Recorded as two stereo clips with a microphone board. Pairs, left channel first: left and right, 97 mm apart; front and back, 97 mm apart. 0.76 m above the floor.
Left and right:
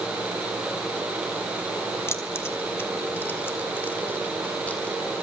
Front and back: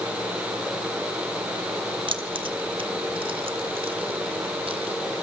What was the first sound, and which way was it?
Keys jangling, 150° left.